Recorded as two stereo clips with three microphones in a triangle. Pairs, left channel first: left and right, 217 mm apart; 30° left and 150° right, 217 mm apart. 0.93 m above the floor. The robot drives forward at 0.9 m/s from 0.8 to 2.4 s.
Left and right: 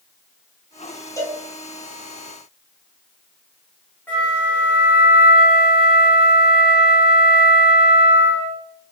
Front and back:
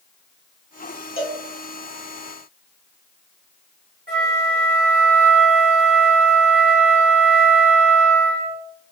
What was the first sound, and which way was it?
A cowbell, 15° left.